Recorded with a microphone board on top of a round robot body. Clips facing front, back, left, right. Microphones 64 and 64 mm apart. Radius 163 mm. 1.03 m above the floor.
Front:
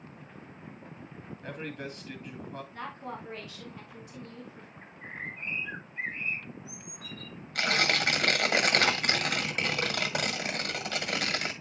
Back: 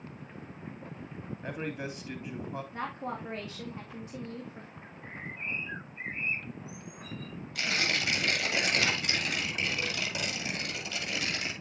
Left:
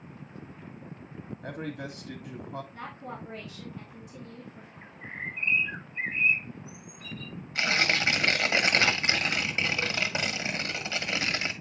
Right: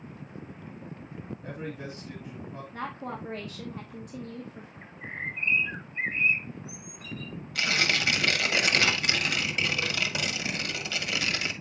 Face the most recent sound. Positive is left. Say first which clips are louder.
# front 4 dB, left 1 dB
turn(degrees=35)